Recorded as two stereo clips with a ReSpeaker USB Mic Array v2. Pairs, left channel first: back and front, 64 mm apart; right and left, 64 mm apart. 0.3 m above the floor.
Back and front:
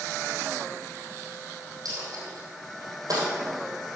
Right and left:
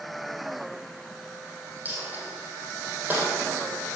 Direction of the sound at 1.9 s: 25° left.